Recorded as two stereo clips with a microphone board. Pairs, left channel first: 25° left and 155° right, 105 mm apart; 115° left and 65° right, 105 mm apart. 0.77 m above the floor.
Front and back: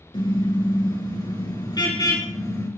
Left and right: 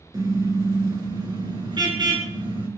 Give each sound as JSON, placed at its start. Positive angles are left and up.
{"t": 0.1, "sound": "a car horn", "azimuth_deg": -15, "distance_m": 6.0}